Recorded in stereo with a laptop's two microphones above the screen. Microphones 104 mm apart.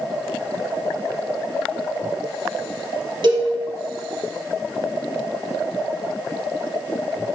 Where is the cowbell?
50° right (ahead or behind), 3 m.